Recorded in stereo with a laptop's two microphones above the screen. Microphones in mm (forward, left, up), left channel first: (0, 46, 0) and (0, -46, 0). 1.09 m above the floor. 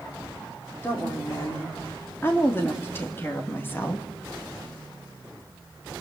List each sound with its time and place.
0.8 s a woman speaking: 25° left (ahead or behind), 3.5 m; by 4.1 s 20° left (ahead or behind), 1.7 m